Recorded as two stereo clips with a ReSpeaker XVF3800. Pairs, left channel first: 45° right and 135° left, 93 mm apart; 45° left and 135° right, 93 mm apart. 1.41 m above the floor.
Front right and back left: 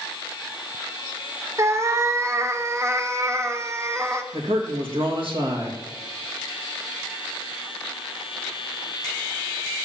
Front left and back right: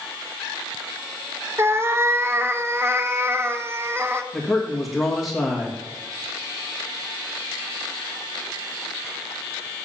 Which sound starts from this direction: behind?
A cat meowing, at 1.6 s.